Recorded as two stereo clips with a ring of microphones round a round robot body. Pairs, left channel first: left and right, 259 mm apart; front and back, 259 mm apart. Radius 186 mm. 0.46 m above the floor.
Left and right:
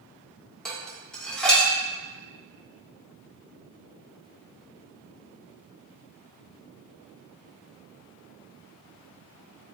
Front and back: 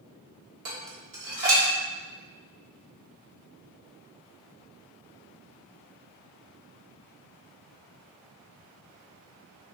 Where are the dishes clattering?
175° left, 0.9 m.